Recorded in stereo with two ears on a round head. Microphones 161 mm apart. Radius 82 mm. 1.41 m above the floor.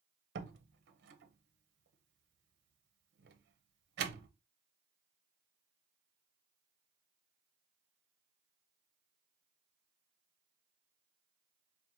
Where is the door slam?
65° right (ahead or behind), 0.7 m.